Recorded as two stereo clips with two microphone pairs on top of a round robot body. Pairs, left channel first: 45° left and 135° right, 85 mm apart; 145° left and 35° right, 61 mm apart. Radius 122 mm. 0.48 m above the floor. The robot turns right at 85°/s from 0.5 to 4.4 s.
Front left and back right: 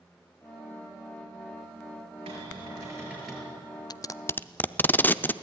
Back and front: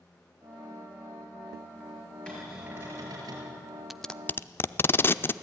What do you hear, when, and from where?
2.3 s a cupboard door: 135° right, 5 m; by 3.5 s 30° right, 5 m
3.9 s tape being pulled: 55° left, 0.6 m; by 5.3 s 100° left, 0.6 m